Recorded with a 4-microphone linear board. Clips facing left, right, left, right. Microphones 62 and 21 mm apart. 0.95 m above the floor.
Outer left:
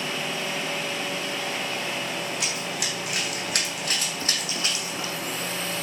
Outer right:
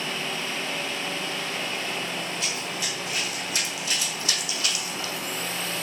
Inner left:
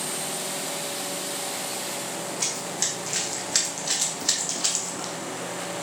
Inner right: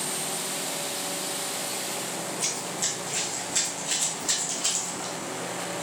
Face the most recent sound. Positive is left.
turn(degrees=20)  # may be behind; listen again after turning